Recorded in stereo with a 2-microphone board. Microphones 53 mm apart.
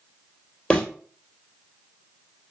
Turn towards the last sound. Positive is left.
turn(degrees=20)  # may be behind; listen again after turning